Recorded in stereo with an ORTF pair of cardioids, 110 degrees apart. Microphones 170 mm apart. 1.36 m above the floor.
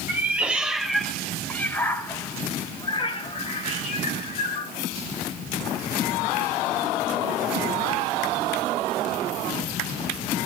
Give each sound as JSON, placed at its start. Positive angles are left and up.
{"t": 0.1, "sound": "a cat meowing", "azimuth_deg": -10, "distance_m": 3.0}